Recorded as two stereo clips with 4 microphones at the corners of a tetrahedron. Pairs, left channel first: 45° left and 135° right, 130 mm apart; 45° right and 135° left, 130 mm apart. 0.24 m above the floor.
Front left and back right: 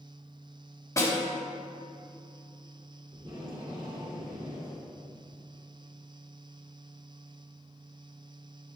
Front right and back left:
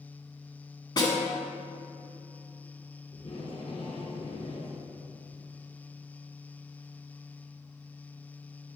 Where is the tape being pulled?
90° right, 2.5 m.